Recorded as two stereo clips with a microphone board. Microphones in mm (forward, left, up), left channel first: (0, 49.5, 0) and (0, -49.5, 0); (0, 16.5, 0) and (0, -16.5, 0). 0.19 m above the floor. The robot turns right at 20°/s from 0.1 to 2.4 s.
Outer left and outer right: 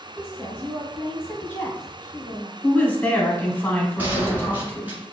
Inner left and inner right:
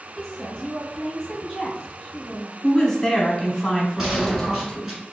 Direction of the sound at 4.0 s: 20° right (ahead or behind).